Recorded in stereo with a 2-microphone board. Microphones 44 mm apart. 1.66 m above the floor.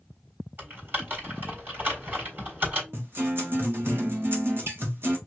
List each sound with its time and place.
0.6 s typing on a keyboard: 50° right (ahead or behind), 4 m
2.9 s a guitar: 65° right (ahead or behind), 1.9 m